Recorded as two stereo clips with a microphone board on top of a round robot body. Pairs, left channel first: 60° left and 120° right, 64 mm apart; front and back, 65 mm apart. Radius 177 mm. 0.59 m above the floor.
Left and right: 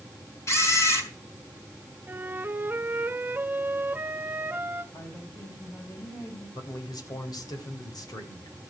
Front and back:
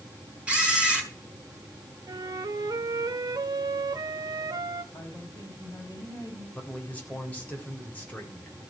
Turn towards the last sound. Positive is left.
turn(degrees=65)